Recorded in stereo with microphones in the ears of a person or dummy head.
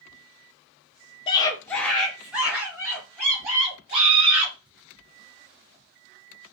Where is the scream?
25° left (ahead or behind), 0.7 m; by 4.5 s 25° right (ahead or behind), 2.5 m.